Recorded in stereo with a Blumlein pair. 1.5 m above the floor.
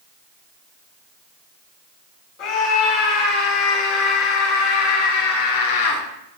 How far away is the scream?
About 4.5 m.